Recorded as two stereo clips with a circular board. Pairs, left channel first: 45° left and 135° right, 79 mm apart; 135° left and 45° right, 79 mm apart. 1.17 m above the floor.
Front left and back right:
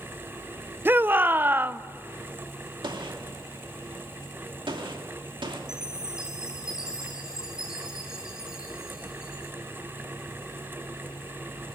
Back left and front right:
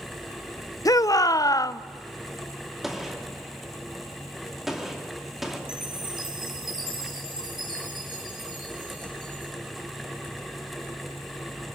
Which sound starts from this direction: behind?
A shout, at 0.8 s.